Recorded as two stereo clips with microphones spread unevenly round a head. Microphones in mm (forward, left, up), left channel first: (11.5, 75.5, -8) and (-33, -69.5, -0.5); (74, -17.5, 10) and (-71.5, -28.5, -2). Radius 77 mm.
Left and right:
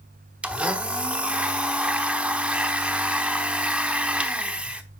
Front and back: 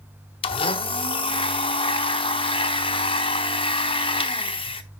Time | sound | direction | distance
0.4 | a blender | 30° right | 1.0 m